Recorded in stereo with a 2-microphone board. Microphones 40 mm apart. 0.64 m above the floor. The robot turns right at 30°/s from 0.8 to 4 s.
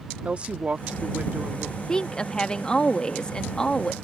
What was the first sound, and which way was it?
A woman speaking, 30° right (ahead or behind).